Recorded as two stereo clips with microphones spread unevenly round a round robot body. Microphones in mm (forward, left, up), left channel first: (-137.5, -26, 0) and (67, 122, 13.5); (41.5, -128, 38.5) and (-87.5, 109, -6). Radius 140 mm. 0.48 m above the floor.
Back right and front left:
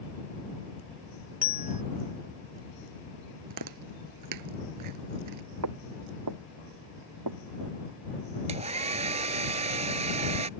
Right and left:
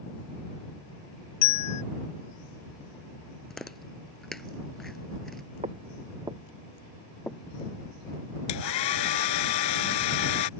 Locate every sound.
1.4 s a bell: 50° right
3.5 s chewing: 25° left
5.6 s footsteps: 50° left; by 7.8 s 15° left
8.5 s a hair dryer: 30° right